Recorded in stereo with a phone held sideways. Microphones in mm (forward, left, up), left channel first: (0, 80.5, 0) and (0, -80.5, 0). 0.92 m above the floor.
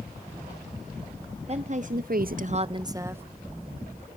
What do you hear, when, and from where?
1.5 s a woman speaking: 40° right (ahead or behind), 0.9 m; by 3.2 s 15° right (ahead or behind), 1.0 m